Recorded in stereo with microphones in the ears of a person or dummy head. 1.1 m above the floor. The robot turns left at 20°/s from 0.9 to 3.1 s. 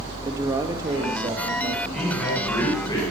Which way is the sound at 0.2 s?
20° right (ahead or behind).